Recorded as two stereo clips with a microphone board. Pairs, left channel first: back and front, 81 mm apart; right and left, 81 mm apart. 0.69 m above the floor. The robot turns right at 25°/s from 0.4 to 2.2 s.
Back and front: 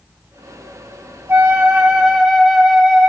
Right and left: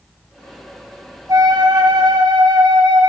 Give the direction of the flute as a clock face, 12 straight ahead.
10 o'clock.